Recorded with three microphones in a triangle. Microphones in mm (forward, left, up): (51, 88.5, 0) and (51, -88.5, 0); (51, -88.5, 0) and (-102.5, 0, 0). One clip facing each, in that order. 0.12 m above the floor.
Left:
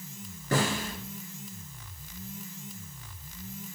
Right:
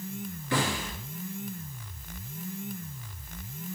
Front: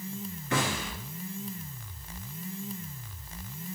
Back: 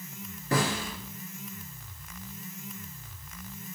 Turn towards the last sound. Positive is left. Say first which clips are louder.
# left 2 dB, back 2 dB
turn(degrees=110)